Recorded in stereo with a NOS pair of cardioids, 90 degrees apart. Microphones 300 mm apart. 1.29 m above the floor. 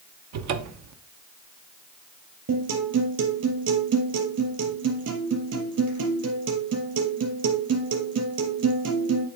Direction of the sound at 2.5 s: 50° right.